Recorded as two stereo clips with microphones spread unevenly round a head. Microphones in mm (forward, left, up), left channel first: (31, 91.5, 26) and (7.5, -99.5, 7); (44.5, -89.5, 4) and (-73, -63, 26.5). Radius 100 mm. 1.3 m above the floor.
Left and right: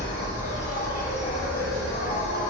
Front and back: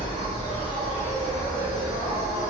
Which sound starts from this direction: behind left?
An insect, at 0.0 s.